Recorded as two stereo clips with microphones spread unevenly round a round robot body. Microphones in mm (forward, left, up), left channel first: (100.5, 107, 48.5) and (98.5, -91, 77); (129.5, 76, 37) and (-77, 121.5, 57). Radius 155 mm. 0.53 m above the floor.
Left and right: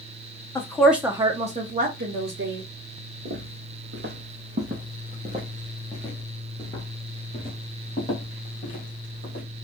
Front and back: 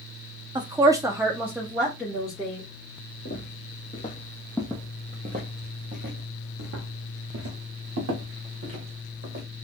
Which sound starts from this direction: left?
A woman speaking, at 0.6 s.